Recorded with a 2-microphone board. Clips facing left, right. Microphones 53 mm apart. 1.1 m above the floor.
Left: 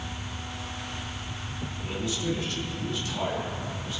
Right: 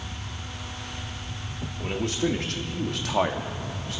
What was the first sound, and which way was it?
A man speaking, 55° right (ahead or behind).